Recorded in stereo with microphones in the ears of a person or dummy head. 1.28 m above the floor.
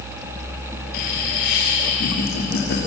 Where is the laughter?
55° left (ahead or behind), 3 m.